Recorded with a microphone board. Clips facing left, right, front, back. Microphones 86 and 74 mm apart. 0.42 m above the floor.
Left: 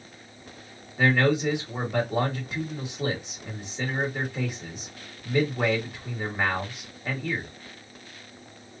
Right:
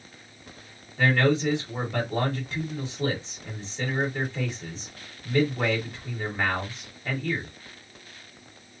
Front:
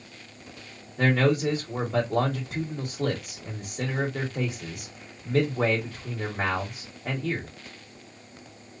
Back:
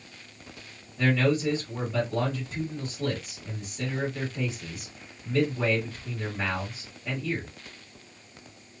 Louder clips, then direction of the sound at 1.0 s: Even, front 2 dB; 15° left.